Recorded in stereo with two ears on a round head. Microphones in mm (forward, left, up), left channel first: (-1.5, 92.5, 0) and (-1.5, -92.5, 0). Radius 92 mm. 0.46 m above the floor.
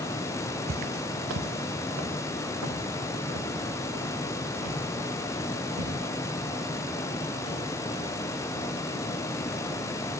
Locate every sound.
0.7 s footsteps: 45° right (ahead or behind), 0.5 m; by 7.6 s 90° right, 10 m